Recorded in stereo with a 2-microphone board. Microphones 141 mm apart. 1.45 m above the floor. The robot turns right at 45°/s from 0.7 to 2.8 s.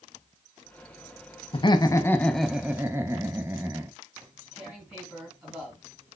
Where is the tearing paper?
5° right (ahead or behind), 2.5 m.